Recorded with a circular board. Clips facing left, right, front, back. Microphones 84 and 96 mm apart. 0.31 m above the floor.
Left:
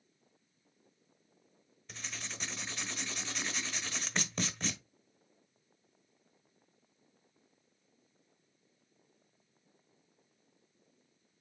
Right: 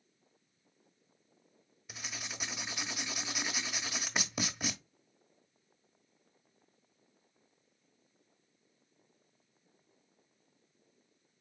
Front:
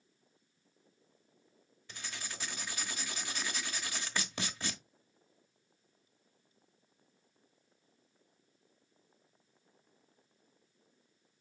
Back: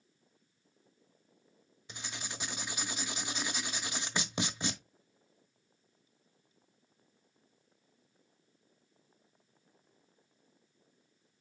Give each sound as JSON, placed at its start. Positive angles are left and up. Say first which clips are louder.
{"t": 1.9, "sound": "writing", "louder": "right 1 dB, back 2 dB", "azimuth_deg": -150, "distance_m": 1.1}